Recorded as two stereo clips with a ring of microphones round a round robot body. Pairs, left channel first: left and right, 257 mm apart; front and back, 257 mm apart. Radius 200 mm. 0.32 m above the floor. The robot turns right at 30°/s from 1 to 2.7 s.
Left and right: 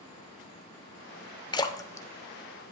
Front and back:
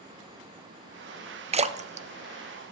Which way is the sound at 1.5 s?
145° left.